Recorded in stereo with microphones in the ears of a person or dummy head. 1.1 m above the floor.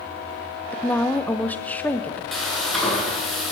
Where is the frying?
Centre (ahead or behind), 8.5 m.